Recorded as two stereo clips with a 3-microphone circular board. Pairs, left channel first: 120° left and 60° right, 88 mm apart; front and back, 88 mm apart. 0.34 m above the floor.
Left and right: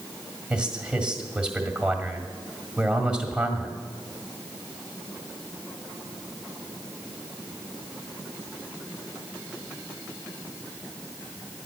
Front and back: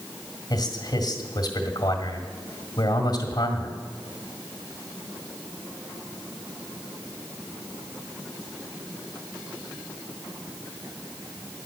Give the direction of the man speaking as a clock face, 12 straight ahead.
11 o'clock.